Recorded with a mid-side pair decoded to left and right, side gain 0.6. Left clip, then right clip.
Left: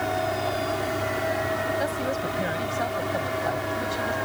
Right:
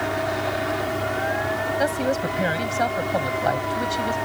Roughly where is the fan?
Ahead.